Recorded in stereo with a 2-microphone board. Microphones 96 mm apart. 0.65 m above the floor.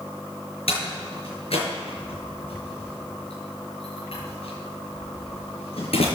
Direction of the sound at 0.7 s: 75° left (ahead or behind).